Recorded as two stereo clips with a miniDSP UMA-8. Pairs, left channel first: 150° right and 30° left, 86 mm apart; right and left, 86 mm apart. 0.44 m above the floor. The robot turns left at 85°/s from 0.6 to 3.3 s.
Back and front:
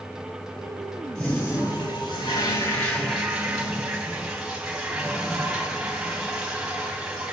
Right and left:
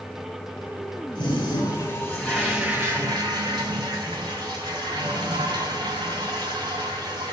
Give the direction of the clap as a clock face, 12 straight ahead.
I don't hear a clap.